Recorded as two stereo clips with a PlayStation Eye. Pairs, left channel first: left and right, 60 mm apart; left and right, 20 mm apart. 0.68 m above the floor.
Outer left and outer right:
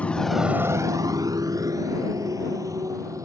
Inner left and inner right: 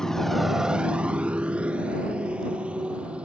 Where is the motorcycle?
25° left (ahead or behind); by 3.2 s 70° right (ahead or behind).